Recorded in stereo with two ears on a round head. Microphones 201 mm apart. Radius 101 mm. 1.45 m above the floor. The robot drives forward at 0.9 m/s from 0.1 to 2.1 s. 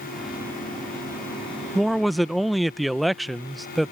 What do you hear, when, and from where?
1.8 s a man speaking: centre (ahead or behind)